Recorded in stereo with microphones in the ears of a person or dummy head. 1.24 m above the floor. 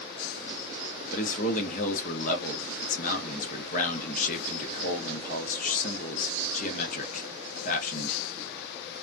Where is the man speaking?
50° left (ahead or behind), 1.0 m.